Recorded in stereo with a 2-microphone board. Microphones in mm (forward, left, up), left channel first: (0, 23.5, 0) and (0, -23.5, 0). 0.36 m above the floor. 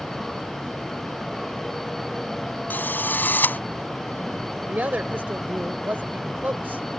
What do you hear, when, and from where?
2.7 s a drill: 40° left (ahead or behind)
4.7 s a woman speaking: 40° right (ahead or behind)